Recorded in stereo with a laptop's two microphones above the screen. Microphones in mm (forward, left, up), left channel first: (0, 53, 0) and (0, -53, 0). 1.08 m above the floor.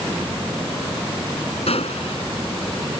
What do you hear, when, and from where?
1.7 s a gunshot: 75° left (ahead or behind)